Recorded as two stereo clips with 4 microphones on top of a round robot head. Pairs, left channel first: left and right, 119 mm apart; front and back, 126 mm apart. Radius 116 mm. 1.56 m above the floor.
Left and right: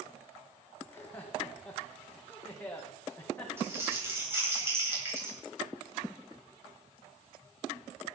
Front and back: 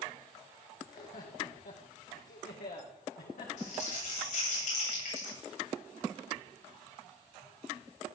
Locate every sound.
0.8 s laughter: 15° left, 2 m
3.6 s crumpling: 20° right, 9.5 m